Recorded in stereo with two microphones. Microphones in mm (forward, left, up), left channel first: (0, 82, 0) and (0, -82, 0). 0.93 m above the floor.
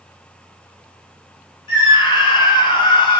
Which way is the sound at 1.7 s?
30° left (ahead or behind).